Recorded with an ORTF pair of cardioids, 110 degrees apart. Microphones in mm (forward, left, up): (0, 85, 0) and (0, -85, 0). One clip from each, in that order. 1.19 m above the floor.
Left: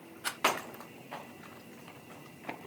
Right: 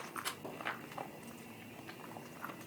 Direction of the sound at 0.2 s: 35° left.